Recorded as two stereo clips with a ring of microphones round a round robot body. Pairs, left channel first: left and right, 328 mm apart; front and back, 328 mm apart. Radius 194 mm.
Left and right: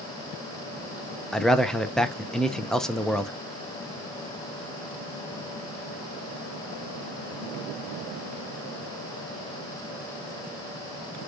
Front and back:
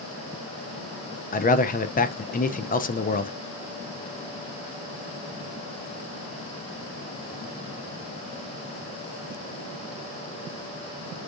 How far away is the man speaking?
About 0.5 m.